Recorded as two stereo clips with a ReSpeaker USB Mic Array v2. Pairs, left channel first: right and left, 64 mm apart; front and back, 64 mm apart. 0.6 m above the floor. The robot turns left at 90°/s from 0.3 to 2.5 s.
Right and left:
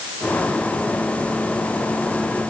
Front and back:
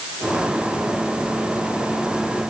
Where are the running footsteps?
I don't hear running footsteps.